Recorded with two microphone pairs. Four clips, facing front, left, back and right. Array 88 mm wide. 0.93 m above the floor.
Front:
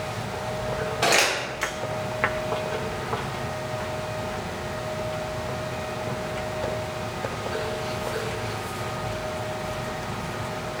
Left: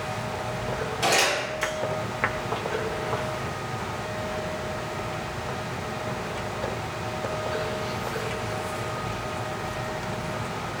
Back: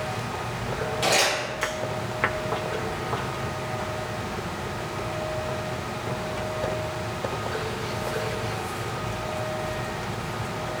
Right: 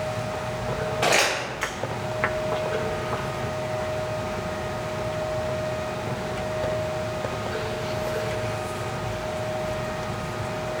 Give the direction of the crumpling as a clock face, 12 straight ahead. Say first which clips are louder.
Right 1 dB, front 1 dB; 1 o'clock.